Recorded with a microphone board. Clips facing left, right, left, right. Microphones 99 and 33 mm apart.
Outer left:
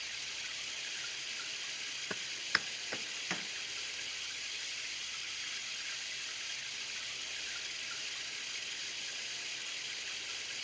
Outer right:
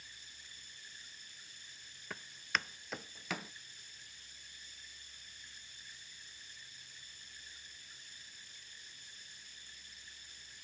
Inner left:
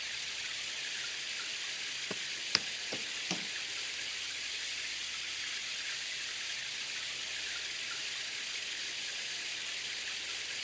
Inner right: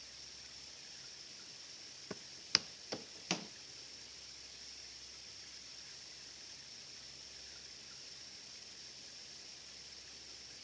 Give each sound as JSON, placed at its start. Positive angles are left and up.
{"t": 0.0, "sound": "running water", "side_deg": 75}
{"t": 2.1, "sound": "footsteps", "side_deg": 25}